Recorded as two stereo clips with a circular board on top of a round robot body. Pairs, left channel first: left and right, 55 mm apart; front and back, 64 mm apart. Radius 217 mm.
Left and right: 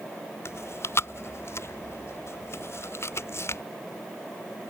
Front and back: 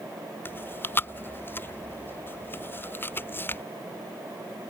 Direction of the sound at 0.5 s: 55° left.